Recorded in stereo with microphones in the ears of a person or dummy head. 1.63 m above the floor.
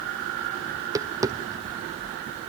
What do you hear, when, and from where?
0.7 s tapping: 15° right (ahead or behind), 0.6 m